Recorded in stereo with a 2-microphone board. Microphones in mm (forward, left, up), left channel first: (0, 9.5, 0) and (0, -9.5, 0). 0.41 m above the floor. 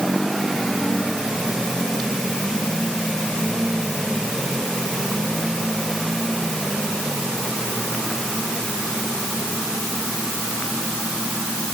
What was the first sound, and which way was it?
Only background noise.